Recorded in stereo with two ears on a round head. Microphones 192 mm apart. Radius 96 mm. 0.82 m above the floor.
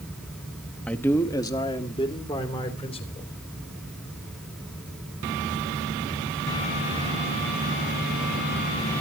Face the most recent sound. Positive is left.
turn(degrees=30)  # may be behind; listen again after turning